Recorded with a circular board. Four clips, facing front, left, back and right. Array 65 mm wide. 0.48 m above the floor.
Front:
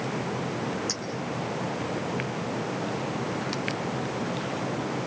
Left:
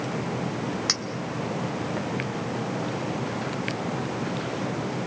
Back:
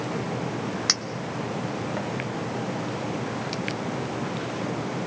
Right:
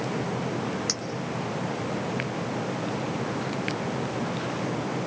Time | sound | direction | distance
0.9 | a clink | 155° left | 1.6 m